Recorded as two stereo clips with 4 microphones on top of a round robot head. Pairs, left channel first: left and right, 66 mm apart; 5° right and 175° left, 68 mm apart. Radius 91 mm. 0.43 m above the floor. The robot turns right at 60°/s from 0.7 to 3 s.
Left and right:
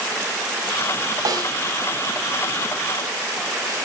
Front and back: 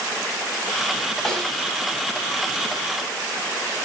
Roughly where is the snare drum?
Right.